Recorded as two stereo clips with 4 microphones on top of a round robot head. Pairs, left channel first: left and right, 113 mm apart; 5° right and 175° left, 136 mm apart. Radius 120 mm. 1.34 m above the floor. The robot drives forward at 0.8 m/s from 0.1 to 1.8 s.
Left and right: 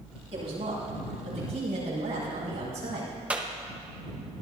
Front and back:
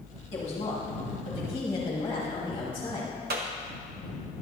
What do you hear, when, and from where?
0.3 s a woman speaking: 50° right, 5.5 m; by 3.1 s 60° right, 4.5 m
3.3 s a clap: 165° right, 1.0 m